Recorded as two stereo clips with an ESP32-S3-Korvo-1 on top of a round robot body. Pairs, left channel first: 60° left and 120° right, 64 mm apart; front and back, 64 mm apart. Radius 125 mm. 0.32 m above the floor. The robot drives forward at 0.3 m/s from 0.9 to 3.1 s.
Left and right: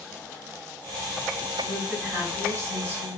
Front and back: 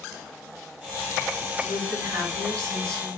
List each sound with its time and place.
1.6 s a woman speaking: 160° right, 2 m; by 3.2 s 165° right, 2.5 m